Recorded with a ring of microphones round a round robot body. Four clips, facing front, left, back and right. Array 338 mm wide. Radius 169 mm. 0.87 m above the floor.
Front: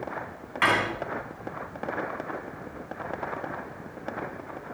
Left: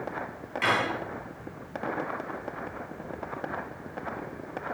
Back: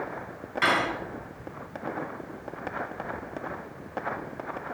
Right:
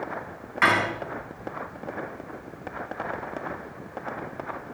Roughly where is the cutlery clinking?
Ahead right.